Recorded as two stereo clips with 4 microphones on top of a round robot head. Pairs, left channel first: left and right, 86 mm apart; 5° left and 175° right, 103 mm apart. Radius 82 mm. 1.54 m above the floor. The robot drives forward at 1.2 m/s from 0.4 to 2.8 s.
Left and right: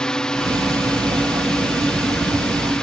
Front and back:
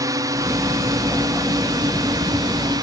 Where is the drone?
170° left.